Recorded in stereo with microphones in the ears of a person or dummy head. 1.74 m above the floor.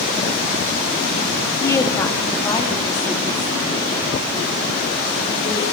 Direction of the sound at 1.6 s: 25° left (ahead or behind).